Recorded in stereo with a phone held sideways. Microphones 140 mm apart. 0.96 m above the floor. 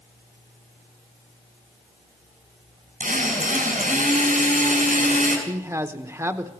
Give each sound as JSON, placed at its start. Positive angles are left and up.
{"t": 3.0, "sound": "a drill", "side_deg": -65, "distance_m": 5.5}
{"t": 5.5, "sound": "a man speaking", "side_deg": -20, "distance_m": 0.8}